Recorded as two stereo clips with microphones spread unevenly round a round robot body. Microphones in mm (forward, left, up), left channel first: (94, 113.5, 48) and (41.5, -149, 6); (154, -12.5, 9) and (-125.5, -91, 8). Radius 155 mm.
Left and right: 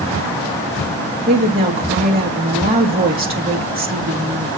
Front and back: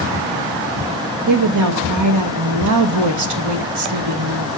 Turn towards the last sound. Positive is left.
turn(degrees=-165)